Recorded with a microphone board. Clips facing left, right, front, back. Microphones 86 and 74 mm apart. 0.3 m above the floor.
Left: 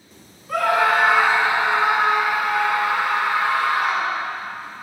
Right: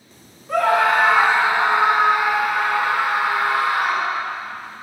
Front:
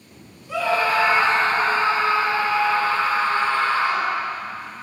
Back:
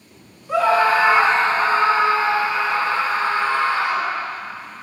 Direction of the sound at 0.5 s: 140° right.